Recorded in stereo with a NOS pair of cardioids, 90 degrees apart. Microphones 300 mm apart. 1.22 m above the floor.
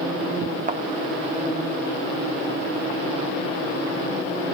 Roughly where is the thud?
Ahead right.